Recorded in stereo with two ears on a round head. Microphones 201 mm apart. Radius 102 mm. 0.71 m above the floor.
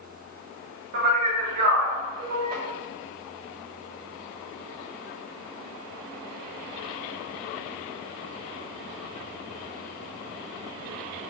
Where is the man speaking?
40° right (ahead or behind), 0.9 m.